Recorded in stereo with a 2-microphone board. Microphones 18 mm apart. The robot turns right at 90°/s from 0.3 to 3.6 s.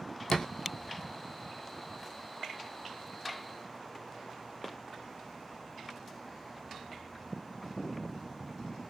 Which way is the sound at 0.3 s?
45° left (ahead or behind).